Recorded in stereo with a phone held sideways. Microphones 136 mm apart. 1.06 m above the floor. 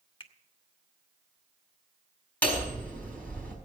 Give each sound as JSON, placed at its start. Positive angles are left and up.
{"t": 0.2, "sound": "a finger snap", "side_deg": 40, "distance_m": 1.1}
{"t": 2.4, "sound": "hammering", "side_deg": 10, "distance_m": 5.0}